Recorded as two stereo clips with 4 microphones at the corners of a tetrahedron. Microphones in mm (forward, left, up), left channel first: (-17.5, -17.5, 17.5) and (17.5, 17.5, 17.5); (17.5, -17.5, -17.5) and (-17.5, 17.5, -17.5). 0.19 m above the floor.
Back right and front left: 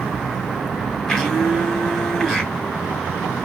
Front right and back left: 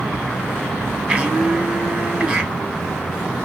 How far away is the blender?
About 1.6 m.